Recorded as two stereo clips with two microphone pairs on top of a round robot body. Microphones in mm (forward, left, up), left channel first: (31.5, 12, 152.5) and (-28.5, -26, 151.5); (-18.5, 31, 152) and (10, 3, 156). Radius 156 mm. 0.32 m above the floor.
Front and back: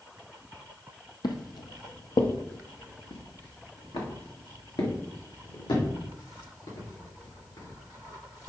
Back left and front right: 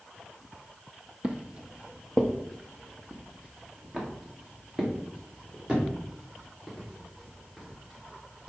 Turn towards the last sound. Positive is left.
turn(degrees=30)